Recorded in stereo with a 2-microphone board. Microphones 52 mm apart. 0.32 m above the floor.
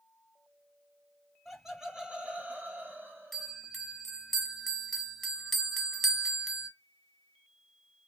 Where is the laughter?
Centre (ahead or behind), 1.2 m; by 3.6 s 55° right (ahead or behind), 1.6 m.